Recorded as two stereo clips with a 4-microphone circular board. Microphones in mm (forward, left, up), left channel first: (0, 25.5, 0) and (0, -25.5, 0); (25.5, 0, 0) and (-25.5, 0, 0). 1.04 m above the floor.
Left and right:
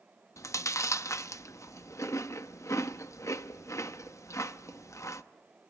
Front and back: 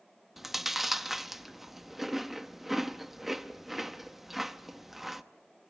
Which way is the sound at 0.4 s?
95° left.